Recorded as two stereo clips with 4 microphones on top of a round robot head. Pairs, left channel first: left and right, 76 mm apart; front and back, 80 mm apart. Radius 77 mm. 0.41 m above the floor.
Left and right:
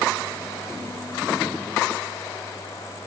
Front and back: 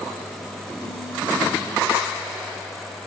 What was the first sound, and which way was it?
Only background noise.